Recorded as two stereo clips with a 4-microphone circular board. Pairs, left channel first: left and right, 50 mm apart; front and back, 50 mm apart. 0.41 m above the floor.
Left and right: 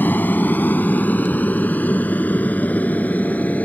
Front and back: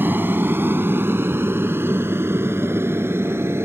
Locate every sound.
0.0 s an aircraft: 140° left; by 3.7 s 145° left